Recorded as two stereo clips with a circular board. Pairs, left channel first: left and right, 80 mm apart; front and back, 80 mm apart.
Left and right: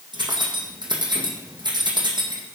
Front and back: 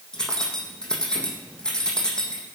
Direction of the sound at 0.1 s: 80° right.